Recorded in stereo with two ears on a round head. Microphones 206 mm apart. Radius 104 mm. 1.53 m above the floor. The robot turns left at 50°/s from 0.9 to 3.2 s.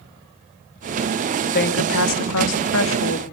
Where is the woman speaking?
135° left, 2.5 m; by 3.2 s 50° left, 2.5 m.